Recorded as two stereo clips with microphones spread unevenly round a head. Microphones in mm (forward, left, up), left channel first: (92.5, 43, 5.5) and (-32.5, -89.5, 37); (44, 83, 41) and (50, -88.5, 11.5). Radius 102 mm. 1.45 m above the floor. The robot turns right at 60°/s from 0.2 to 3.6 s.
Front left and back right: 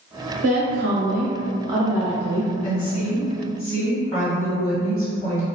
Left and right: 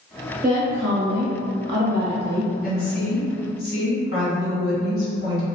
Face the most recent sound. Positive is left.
turn(degrees=110)